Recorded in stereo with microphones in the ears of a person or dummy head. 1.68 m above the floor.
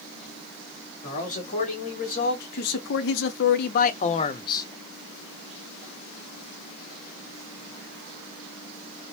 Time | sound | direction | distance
1.0 | a man speaking | 35° left (ahead or behind) | 1.8 m